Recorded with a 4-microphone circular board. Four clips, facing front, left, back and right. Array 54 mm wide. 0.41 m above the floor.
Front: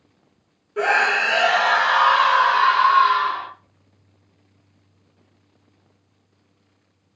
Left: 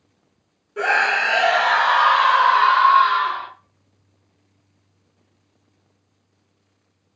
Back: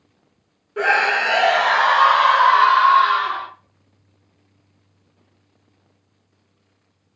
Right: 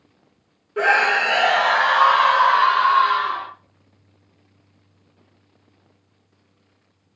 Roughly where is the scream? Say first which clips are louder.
Right 1 dB, back 1 dB; behind right.